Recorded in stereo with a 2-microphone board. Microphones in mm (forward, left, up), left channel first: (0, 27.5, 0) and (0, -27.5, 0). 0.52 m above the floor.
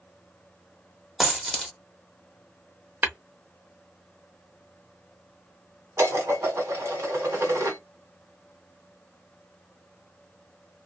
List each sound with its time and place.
1.2 s a dropped coin: 5° right (ahead or behind), 0.8 m
3.0 s tapping: 35° right (ahead or behind), 0.8 m
6.0 s dishes clattering: 60° right (ahead or behind), 1.7 m